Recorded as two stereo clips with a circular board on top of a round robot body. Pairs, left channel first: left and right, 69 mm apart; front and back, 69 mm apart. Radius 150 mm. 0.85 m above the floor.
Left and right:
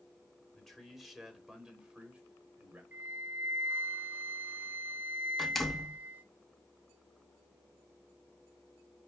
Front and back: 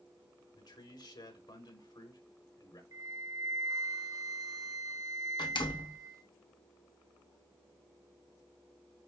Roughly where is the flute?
Behind right.